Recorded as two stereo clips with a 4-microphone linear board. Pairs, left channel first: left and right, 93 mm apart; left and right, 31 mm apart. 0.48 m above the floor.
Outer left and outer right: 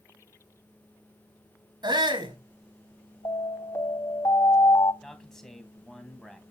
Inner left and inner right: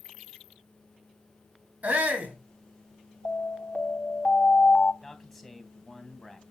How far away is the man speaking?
About 3 m.